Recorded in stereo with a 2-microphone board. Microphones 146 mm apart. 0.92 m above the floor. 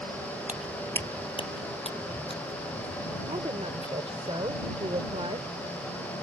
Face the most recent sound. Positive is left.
turn(degrees=-40)  # may be behind; listen again after turning